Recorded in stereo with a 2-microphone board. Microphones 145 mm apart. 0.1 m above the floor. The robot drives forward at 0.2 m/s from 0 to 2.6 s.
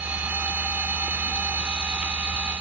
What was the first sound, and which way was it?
Only background noise.